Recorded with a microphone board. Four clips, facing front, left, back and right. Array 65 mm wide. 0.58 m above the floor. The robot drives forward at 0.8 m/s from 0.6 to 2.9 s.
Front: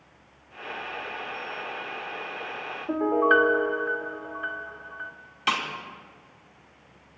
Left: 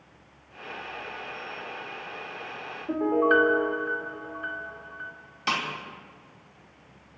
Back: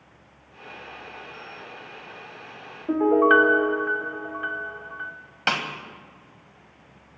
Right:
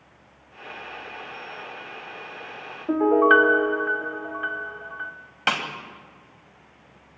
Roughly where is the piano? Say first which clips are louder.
Right 5 dB, back 4 dB; behind right.